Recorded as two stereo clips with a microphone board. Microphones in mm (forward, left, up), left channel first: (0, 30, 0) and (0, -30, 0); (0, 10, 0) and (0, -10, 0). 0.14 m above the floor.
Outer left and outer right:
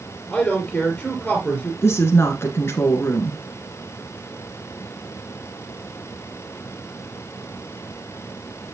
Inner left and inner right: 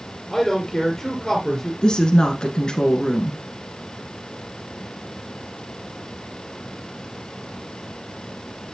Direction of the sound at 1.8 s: 45° left (ahead or behind).